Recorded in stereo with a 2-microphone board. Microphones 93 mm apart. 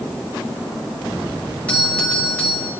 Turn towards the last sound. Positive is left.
turn(degrees=15)  # may be behind; listen again after turning